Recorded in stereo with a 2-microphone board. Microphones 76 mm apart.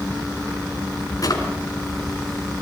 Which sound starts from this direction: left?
A drawer, at 1.2 s.